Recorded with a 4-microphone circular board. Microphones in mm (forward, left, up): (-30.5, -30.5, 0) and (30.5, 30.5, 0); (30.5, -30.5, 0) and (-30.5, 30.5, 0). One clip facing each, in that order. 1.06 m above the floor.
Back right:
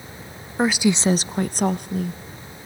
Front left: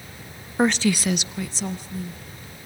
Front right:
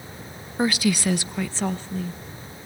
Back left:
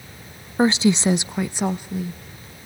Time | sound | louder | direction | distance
0.6 | a woman speaking | back right 1 dB, back left 5 dB | 125° left | 0.6 m